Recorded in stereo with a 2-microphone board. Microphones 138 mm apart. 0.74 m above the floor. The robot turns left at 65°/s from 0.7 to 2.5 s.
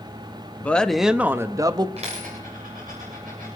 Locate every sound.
0.6 s a woman speaking: 15° left, 0.6 m; by 1.9 s 60° right, 0.6 m
2.0 s a dropped coin: 45° right (ahead or behind), 8 m; by 3.5 s 80° right, 8 m